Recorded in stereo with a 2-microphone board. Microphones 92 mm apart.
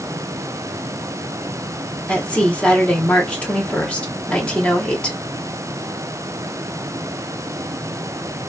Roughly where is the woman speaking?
Centre.